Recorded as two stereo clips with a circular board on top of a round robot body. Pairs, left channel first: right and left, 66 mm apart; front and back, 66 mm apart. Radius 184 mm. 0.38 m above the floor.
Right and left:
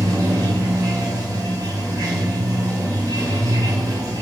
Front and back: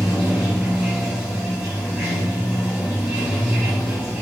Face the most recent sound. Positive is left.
turn(degrees=110)